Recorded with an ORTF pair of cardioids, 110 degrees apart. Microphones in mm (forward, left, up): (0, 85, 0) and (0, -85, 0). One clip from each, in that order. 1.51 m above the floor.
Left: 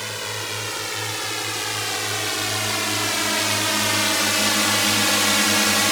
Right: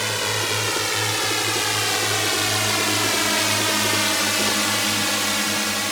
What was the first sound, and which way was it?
A drone, 30° right.